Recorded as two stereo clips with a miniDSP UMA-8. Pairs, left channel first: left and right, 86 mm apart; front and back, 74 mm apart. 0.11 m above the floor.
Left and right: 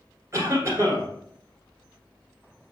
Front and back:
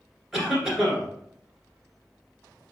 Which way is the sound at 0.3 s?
100° right.